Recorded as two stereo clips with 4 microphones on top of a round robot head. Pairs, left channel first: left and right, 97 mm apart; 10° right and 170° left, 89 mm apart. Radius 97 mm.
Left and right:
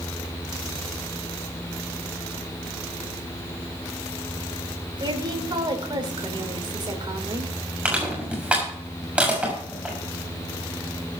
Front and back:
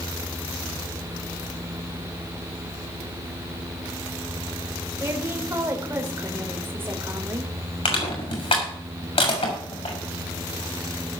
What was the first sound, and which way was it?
A woman speaking, 125° right.